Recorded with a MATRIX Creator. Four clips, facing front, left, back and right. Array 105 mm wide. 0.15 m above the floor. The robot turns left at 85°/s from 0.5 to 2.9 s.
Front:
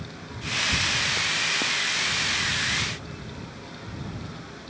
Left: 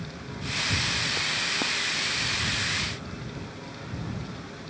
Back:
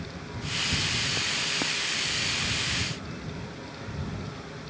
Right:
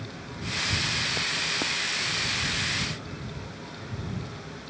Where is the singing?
No singing in this recording.